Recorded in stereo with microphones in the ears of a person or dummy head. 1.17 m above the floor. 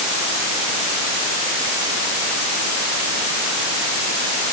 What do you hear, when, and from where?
Only background noise.